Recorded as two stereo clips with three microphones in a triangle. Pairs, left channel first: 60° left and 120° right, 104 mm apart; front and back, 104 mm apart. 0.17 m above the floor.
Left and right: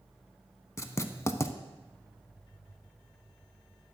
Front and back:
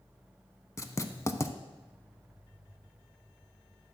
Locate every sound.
0.8 s writing: 25° left, 0.5 m